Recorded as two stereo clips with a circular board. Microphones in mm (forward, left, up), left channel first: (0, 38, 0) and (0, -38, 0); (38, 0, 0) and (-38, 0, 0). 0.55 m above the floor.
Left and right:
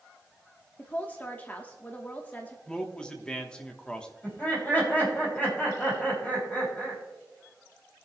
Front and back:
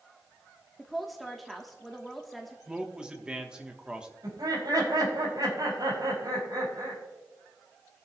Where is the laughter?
155° left, 4.5 m.